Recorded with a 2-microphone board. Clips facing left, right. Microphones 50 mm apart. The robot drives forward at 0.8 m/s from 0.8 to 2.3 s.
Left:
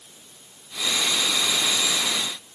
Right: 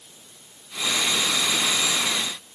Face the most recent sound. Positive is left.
No sound to turn to.